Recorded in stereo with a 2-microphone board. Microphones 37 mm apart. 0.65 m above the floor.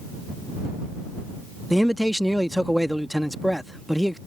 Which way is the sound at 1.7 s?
Centre (ahead or behind).